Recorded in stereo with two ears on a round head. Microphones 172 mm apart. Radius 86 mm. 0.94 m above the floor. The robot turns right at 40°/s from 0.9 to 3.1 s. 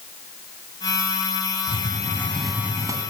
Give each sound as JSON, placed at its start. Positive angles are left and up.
{"t": 1.7, "sound": "a hiss", "azimuth_deg": 150, "distance_m": 2.0}